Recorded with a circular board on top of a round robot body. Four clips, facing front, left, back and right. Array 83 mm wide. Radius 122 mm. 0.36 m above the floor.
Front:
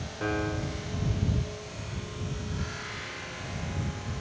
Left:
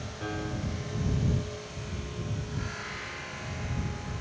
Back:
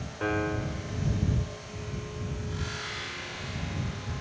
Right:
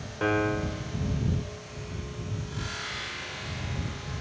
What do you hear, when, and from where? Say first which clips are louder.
0.2 s a piano: right 9 dB, back 1 dB; 105° right